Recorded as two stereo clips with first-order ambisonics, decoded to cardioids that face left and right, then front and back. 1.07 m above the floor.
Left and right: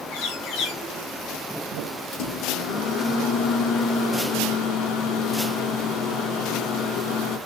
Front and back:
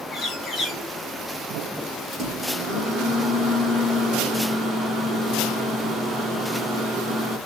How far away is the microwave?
About 1.5 m.